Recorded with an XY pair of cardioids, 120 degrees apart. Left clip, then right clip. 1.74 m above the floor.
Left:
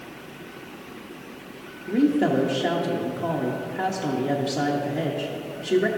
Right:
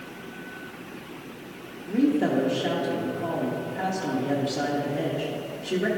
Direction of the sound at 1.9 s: 20° left.